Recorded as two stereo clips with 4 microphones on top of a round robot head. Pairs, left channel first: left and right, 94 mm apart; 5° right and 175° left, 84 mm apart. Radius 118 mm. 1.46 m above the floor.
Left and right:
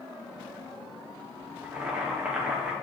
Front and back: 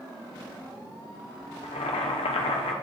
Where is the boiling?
10° right, 0.5 m.